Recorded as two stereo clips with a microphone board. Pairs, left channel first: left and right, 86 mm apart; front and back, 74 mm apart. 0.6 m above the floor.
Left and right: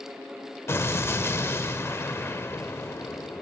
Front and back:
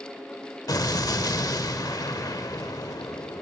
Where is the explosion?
30° left, 0.6 m.